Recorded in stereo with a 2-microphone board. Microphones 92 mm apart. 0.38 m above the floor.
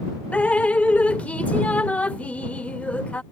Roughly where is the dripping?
Centre.